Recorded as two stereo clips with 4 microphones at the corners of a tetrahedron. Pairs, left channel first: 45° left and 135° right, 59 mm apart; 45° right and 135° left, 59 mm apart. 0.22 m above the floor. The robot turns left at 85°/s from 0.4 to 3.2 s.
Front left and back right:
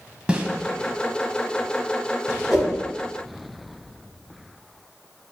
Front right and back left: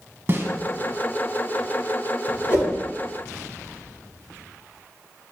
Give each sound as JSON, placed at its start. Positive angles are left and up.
{"t": 0.3, "sound": "a snare drum", "azimuth_deg": 160, "distance_m": 0.6}
{"t": 2.5, "sound": "a whoosh", "azimuth_deg": -55, "distance_m": 1.8}